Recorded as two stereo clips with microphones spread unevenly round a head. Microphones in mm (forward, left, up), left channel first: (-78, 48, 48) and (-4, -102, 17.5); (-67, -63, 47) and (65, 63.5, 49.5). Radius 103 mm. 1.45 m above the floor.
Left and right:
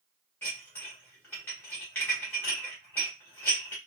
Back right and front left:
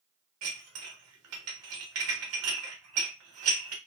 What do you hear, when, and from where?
0.4 s dishes clattering: 40° left, 1.1 m